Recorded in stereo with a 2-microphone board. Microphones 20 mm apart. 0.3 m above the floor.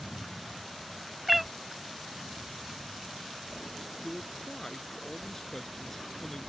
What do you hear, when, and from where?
1.3 s a cat meowing: 10° right (ahead or behind)
4.0 s a man speaking: 25° left (ahead or behind)